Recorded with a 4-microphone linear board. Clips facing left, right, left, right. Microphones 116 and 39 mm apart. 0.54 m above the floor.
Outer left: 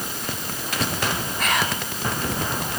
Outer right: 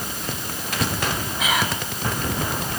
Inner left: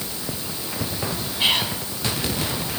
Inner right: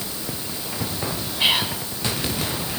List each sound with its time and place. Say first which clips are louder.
1.4 s whispering: outer right 1 dB, inner right 1 dB; 5° right (ahead or behind), 4.5 m